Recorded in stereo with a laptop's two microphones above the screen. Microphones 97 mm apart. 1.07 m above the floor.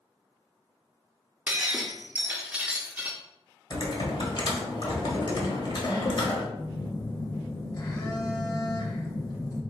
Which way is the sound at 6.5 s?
35° left (ahead or behind).